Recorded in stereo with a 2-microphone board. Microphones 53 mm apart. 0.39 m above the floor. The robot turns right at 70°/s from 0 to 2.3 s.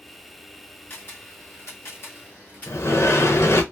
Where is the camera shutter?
35° left (ahead or behind), 1.3 m; by 2.8 s 30° left (ahead or behind), 1.3 m.